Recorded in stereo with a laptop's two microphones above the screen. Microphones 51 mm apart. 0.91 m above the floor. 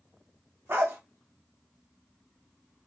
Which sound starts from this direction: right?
A dog barking, at 0.7 s.